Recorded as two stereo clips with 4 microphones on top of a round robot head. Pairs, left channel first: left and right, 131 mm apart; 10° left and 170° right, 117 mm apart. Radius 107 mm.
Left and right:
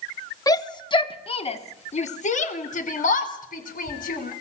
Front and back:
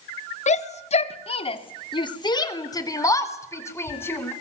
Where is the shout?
25° left, 2 m; by 4.3 s 80° left, 4 m.